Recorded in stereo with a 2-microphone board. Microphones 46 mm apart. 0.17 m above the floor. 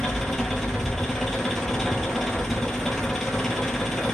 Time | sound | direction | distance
0.0 | an engine running | 10° left (ahead or behind) | 0.9 m